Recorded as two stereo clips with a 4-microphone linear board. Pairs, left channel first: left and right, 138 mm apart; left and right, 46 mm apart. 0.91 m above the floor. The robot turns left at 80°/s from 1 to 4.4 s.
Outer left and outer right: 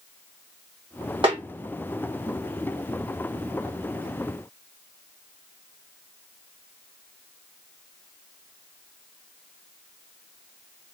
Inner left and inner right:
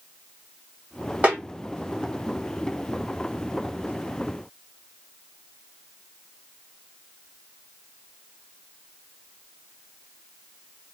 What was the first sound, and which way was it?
A snare drum, 40° right (ahead or behind).